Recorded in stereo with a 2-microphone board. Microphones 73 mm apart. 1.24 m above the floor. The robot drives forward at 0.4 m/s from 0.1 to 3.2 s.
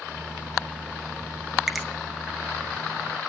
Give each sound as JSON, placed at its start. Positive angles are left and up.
{"t": 1.7, "sound": "a finger snap", "side_deg": -5, "distance_m": 0.9}